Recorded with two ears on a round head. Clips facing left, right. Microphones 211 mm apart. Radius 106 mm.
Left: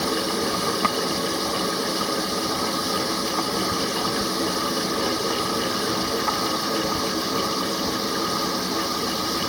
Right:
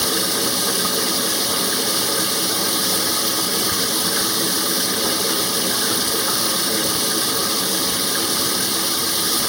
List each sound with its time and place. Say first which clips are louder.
0.0 s running water: even; 75° right (ahead or behind)